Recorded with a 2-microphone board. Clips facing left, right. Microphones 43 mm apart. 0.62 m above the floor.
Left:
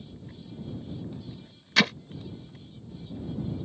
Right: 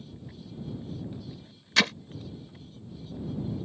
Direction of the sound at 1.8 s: 5° left (ahead or behind).